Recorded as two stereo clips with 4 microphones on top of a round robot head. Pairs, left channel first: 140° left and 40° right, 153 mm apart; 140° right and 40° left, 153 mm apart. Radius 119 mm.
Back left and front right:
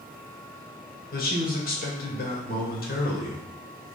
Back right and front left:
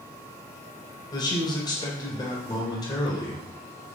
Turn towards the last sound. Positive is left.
turn(degrees=155)